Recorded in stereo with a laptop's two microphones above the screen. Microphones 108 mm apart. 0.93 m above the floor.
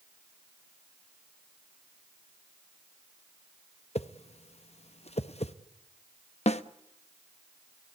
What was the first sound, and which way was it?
A whoosh, 65° left (ahead or behind).